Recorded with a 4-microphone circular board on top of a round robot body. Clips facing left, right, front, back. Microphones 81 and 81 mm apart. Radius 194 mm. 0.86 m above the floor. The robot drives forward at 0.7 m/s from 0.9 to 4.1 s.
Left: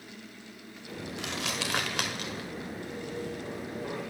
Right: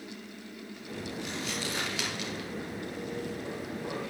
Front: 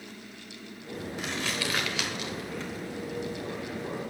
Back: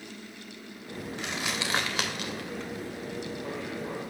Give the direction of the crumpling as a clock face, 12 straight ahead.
9 o'clock.